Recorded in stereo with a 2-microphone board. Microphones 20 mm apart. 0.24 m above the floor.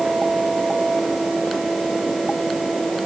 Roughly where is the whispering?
I don't hear whispering.